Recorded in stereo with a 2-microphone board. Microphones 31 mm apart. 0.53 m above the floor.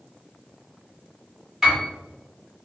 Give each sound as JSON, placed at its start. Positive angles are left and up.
{"t": 1.6, "sound": "a piano", "side_deg": -10, "distance_m": 1.5}